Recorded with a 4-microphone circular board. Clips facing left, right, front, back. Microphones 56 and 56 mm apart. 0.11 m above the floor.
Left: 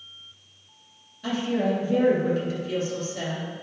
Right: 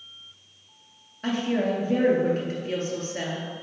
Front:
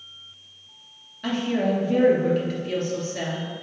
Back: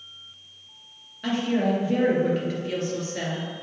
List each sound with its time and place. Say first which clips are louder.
1.2 s a woman speaking: even, even; 95° right, 2.5 m